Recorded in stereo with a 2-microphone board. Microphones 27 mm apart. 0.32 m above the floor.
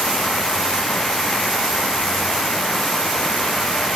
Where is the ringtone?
No ringtone in this recording.